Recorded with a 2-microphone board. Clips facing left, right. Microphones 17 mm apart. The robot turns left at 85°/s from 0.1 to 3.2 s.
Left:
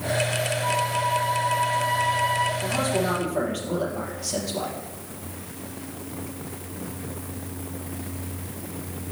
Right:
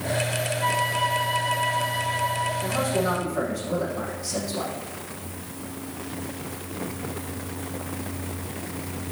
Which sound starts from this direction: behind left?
A man speaking, at 2.6 s.